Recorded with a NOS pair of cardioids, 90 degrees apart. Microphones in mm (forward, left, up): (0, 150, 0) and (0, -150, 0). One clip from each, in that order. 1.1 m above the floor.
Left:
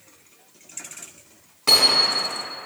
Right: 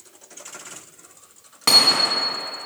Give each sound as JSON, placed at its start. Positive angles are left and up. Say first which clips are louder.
{"t": 1.7, "sound": "hammering", "louder": "right 1 dB", "azimuth_deg": -50, "distance_m": 3.5}